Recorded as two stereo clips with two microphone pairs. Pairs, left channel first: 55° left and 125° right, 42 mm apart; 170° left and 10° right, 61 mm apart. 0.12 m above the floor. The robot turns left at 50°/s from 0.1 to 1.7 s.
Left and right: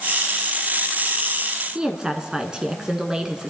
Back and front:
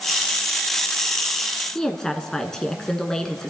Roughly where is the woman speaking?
Behind right.